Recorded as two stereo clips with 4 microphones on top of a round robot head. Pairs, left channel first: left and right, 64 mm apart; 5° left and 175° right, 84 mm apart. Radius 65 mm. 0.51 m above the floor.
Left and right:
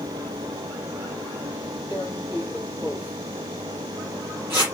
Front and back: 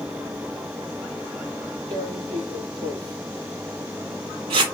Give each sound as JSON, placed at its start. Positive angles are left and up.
{"t": 1.9, "sound": "tearing paper", "azimuth_deg": -155, "distance_m": 4.5}